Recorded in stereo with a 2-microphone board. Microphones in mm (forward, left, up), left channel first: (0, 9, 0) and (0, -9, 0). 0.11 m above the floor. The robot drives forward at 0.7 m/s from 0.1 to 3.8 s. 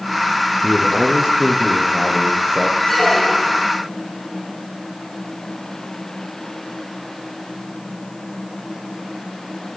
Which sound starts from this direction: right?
A man speaking, at 0.6 s.